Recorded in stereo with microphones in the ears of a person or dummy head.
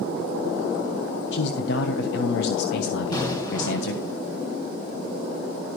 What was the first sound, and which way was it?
A man speaking, 65° left (ahead or behind).